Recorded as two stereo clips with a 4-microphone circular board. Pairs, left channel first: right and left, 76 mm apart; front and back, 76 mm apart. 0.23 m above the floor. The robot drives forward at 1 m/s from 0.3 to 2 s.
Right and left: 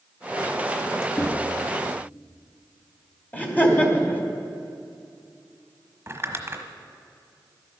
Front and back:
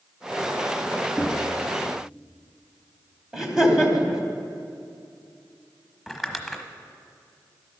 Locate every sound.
1.2 s knocking: 110° right, 1.2 m; by 1.4 s 120° right, 1.3 m
3.3 s laughter: 110° right, 1.4 m
6.1 s crumpling: 100° left, 1.1 m